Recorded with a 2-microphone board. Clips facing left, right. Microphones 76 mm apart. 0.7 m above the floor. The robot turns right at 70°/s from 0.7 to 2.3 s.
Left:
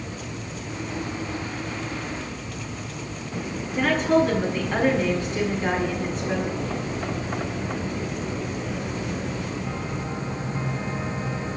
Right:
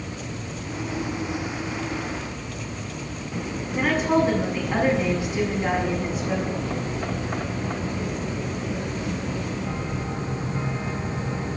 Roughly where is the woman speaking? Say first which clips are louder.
Left 1 dB; centre.